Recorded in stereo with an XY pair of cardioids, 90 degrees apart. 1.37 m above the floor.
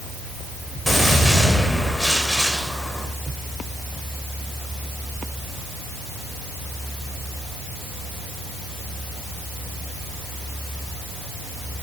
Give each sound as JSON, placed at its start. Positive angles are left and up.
{"t": 0.9, "sound": "a gunshot", "azimuth_deg": 5, "distance_m": 4.0}